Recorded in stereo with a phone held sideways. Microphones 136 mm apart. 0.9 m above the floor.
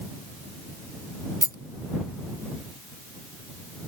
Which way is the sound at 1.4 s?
25° left (ahead or behind).